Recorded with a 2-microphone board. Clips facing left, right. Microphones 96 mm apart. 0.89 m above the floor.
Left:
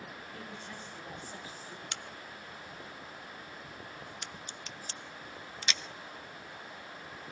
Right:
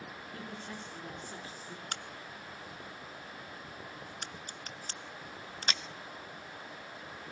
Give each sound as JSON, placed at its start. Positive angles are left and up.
{"t": 0.3, "sound": "a woman speaking", "side_deg": -45, "distance_m": 9.0}
{"t": 1.9, "sound": "a crack", "side_deg": -45, "distance_m": 1.1}